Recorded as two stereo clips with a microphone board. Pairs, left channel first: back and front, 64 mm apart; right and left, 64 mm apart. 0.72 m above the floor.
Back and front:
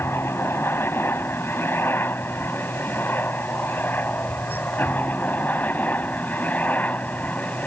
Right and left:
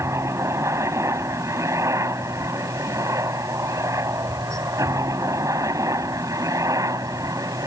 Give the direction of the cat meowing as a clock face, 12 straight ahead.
I don't hear a cat meowing.